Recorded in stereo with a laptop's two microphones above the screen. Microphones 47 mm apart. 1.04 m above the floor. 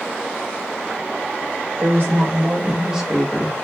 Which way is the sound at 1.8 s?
45° right (ahead or behind).